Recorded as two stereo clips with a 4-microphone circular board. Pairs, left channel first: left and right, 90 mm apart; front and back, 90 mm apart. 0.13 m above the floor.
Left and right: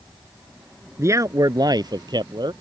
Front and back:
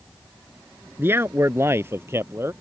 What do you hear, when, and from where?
1.0 s a man speaking: 130° right; by 2.5 s 120° right